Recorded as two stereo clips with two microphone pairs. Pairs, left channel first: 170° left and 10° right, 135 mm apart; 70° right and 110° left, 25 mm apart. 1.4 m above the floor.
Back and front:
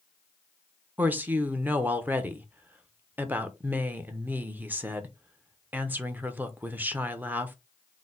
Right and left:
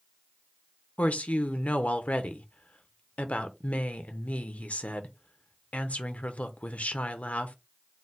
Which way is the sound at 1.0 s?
85° right.